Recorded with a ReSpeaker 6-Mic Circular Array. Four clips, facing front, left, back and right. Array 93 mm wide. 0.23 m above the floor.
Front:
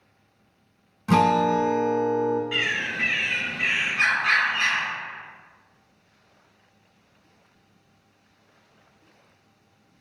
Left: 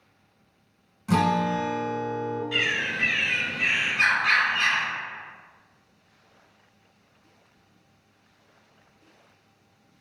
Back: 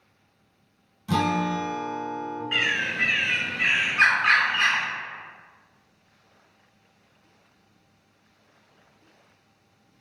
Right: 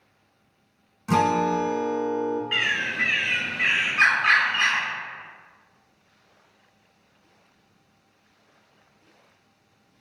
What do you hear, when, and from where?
1.1 s a guitar: 20° right, 0.5 m
2.5 s a bird: 115° right, 1.5 m